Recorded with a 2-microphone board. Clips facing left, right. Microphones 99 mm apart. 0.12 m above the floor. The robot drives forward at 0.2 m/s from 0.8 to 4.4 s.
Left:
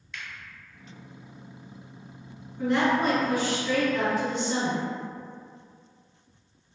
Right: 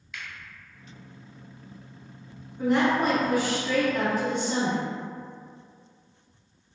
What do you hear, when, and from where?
0.1 s a finger snap: 5° right (ahead or behind), 1.4 m
2.6 s a woman speaking: 5° right (ahead or behind), 1.3 m